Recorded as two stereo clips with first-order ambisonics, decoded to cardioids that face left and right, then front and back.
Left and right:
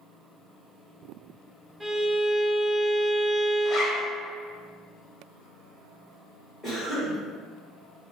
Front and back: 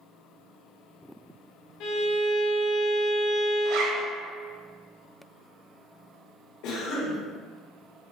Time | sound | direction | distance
1.8 | a violin | 15° right | 1.7 m
3.6 | a zipper | 160° left | 0.9 m
6.6 | a cough | 5° left | 1.6 m